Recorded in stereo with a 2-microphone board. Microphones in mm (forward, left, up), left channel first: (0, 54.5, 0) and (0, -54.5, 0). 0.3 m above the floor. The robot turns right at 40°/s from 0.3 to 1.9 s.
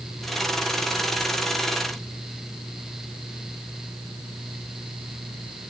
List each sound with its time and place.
Only background noise.